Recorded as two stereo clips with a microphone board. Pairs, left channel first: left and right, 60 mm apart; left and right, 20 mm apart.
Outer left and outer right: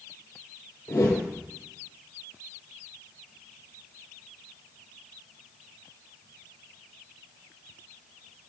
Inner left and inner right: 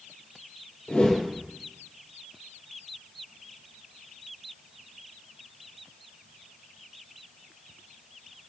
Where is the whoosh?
80° left, 3.5 m.